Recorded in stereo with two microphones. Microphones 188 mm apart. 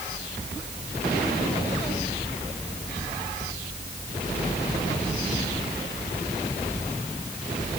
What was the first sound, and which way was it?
Only background noise.